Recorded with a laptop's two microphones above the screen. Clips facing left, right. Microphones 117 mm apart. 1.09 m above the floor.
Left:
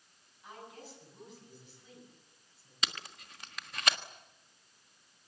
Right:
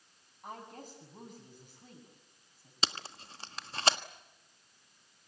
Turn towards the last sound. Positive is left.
turn(degrees=-30)  # may be behind; listen again after turning